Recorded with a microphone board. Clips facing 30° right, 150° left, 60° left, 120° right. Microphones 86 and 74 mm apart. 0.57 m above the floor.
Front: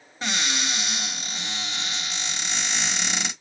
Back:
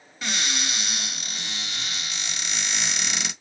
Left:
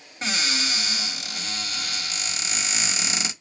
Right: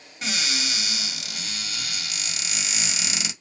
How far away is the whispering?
I don't hear whispering.